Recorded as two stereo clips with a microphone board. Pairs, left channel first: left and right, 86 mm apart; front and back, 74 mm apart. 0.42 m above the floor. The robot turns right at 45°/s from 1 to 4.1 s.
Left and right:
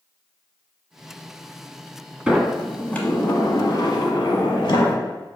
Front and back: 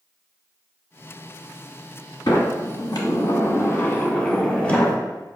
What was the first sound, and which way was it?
A sliding door, 15° right.